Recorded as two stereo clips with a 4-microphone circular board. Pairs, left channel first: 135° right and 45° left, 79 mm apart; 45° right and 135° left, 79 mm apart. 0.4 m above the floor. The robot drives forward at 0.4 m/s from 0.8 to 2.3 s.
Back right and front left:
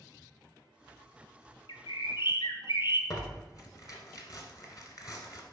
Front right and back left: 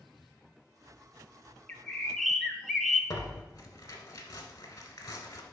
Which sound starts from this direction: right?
Tearing paper, at 3.1 s.